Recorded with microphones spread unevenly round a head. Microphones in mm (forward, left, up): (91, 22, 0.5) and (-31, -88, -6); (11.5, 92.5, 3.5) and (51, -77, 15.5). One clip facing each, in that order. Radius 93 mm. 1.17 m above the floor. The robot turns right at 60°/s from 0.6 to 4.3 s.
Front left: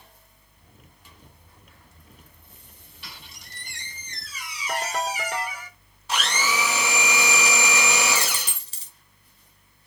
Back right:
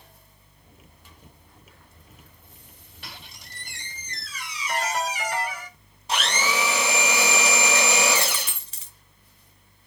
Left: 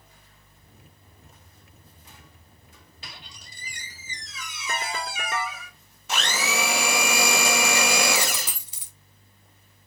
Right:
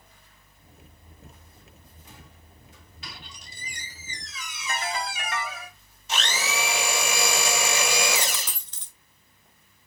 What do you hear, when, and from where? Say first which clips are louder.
3.0 s a squeak: back right 2 dB, right 2 dB; 165° left, 2.5 m; by 5.7 s 115° right, 2.5 m
4.7 s a ringtone: even, right 1 dB; 105° left, 1.6 m
6.1 s a blender: back right 1 dB, left 2 dB; 145° left, 1.8 m
8.2 s a dropped coin: back right 2 dB, left 2 dB; 25° left, 1.0 m